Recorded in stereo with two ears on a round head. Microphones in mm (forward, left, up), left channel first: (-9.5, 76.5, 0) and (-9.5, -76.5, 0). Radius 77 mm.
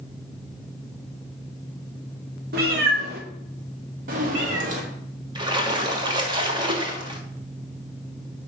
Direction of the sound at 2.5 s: 60° right (ahead or behind).